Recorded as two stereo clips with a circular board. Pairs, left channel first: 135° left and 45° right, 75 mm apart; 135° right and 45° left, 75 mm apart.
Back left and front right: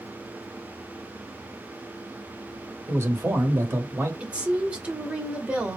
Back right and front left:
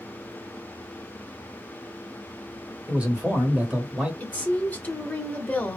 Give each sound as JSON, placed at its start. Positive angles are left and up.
{"t": 2.9, "sound": "a man speaking", "azimuth_deg": -15, "distance_m": 1.0}
{"t": 4.2, "sound": "a woman speaking", "azimuth_deg": -100, "distance_m": 0.9}